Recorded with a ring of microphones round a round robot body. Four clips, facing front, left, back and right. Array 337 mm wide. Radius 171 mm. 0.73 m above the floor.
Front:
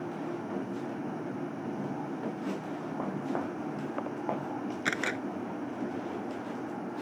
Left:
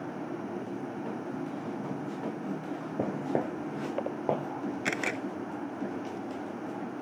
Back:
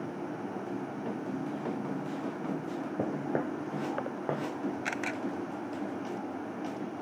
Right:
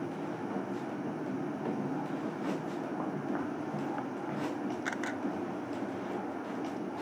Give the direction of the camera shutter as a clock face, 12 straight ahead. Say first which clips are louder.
Left 3 dB, front 2 dB; 10 o'clock.